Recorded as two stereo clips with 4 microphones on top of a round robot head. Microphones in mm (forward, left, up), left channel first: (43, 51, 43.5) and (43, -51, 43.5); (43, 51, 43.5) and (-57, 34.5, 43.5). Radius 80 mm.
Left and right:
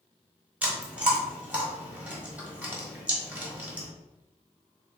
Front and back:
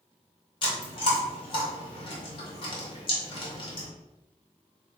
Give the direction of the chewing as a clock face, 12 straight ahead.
1 o'clock.